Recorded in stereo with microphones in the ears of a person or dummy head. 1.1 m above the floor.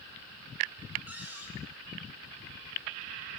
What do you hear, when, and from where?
1.1 s a cupboard door: 10° right (ahead or behind), 7 m